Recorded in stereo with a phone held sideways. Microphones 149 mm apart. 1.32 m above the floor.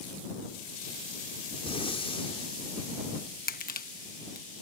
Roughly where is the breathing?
Left.